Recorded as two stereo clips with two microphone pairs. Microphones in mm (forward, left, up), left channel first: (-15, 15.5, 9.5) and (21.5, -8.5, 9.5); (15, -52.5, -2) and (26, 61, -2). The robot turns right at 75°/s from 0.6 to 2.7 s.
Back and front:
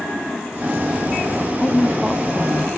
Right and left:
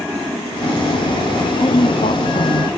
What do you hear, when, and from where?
1.6 s a woman speaking: 145° right, 1.0 m; by 2.7 s 65° right, 1.0 m